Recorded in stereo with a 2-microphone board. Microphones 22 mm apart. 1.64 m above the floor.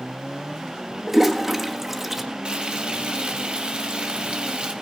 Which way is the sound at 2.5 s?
45° right (ahead or behind).